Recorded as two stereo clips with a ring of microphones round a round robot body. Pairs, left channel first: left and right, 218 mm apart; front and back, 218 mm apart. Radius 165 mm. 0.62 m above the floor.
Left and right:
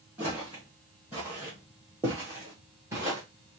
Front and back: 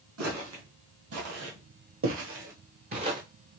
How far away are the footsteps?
About 1.9 m.